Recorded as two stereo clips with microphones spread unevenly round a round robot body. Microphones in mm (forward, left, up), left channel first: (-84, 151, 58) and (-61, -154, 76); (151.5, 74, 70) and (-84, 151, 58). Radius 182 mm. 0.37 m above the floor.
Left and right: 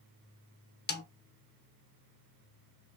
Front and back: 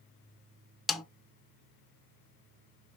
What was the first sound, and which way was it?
A snare drum, 75° left.